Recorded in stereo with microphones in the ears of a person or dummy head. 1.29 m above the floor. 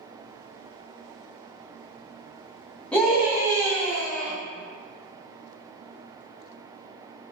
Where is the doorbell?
I don't hear a doorbell.